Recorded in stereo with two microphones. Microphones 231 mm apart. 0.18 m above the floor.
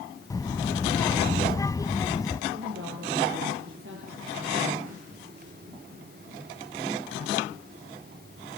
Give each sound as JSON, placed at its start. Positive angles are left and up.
{"t": 0.3, "sound": "a child speaking", "side_deg": 15, "distance_m": 0.7}
{"t": 2.5, "sound": "a woman speaking", "side_deg": -55, "distance_m": 4.5}